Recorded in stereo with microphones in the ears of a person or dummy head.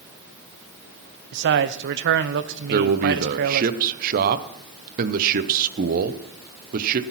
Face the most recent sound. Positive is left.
turn(degrees=-50)  # may be behind; listen again after turning